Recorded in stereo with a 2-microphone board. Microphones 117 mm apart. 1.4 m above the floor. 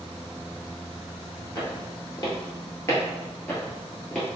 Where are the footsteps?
35° left (ahead or behind), 1.8 m; by 4.3 s 5° left (ahead or behind), 1.5 m.